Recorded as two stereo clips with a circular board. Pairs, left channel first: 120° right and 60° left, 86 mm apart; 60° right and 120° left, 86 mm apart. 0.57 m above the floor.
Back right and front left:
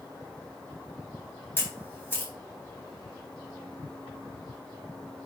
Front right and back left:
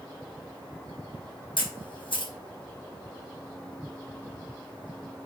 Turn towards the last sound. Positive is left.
turn(degrees=-55)